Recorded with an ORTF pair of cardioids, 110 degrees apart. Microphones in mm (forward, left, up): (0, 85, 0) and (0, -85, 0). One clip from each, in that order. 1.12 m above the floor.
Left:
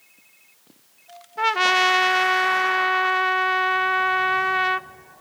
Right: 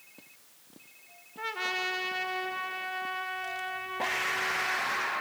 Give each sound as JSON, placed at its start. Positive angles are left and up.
{"t": 1.4, "sound": "a trumpet", "azimuth_deg": 60, "distance_m": 0.7}